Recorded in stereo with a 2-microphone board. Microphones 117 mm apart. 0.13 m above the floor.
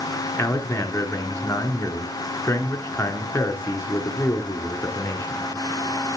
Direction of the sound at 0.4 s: 20° left (ahead or behind).